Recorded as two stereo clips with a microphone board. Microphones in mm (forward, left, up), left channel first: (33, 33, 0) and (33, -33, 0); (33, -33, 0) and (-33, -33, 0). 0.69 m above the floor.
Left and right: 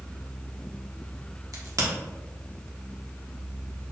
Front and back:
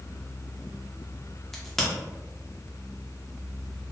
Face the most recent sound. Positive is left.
turn(degrees=-85)